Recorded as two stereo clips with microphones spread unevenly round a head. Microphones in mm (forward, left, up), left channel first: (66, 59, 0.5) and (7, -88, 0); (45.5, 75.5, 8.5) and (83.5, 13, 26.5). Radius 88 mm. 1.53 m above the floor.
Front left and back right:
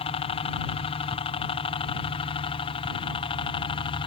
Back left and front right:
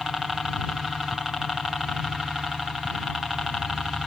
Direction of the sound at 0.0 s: 35° left.